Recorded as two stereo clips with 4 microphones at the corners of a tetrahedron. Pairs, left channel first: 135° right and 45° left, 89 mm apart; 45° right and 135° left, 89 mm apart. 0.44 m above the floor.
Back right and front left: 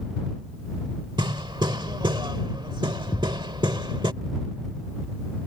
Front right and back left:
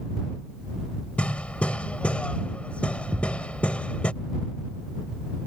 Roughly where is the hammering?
Ahead left.